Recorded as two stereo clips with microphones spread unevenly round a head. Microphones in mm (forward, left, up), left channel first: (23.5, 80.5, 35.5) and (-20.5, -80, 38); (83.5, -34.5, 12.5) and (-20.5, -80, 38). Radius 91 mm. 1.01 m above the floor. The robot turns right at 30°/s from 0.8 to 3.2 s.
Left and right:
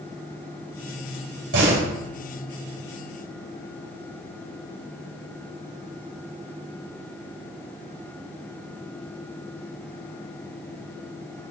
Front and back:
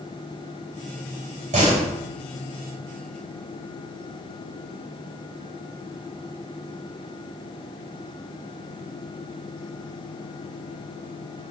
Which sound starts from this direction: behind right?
A door slam, at 1.5 s.